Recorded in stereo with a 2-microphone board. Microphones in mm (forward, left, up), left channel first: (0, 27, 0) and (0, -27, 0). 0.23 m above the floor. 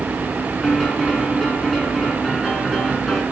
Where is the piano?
10° left (ahead or behind), 2.5 m.